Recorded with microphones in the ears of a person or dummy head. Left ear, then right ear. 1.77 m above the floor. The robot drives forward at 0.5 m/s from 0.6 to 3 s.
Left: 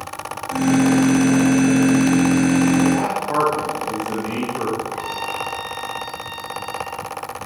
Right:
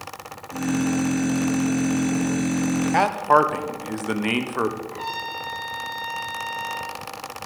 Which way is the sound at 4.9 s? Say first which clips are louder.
Left 4 dB; 5° right (ahead or behind).